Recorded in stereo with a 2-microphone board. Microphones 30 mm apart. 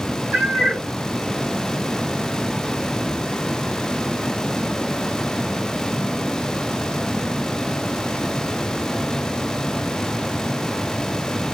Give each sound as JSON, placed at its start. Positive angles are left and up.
{"t": 0.3, "sound": "a cat meowing", "side_deg": -70, "distance_m": 2.5}